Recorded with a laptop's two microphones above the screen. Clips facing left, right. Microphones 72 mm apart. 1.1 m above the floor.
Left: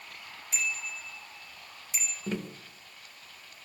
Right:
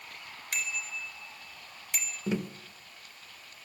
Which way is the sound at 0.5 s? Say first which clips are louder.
Left 1 dB; 75° right (ahead or behind).